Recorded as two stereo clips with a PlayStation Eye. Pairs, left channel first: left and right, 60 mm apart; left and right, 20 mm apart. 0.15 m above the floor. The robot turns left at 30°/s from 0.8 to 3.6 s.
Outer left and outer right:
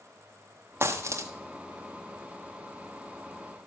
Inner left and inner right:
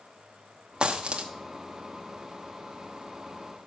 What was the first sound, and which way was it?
A dropped coin, 40° right (ahead or behind).